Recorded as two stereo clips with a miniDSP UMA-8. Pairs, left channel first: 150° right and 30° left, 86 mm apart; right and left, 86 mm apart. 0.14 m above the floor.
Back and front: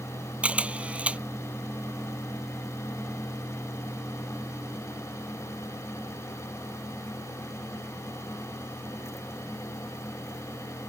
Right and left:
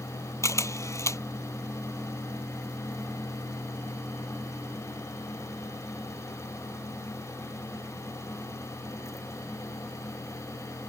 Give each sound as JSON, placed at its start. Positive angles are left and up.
{"t": 0.4, "sound": "a camera shutter", "azimuth_deg": -45}